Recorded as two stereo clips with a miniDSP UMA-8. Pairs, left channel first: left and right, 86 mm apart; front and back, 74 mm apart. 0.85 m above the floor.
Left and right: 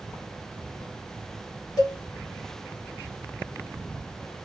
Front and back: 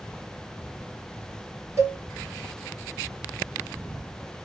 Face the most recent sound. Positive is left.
turn(degrees=135)